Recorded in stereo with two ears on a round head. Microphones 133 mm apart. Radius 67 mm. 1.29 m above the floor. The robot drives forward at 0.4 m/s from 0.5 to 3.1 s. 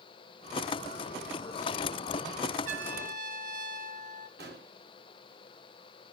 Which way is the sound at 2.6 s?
55° right (ahead or behind).